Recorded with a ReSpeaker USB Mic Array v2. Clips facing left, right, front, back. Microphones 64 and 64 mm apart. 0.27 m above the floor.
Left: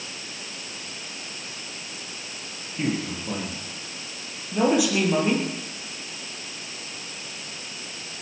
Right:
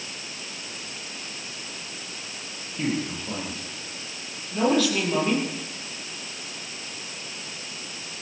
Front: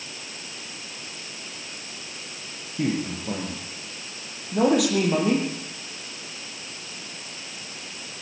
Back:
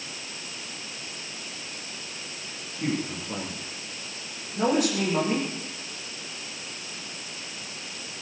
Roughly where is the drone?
No drone in this recording.